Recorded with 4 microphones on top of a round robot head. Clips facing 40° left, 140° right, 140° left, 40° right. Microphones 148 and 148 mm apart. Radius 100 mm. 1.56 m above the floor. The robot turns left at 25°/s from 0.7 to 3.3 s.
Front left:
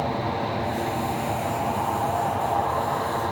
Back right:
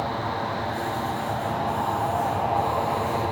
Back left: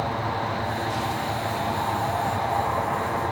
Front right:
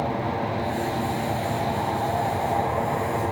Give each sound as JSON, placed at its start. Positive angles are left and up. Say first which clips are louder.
{"t": 0.0, "sound": "an aircraft", "louder": "front left 2 dB, front right 2 dB", "azimuth_deg": -10}